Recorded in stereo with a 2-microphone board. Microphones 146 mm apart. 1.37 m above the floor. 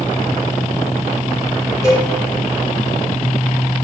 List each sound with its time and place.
1.8 s a cowbell: 20° left (ahead or behind), 5.5 m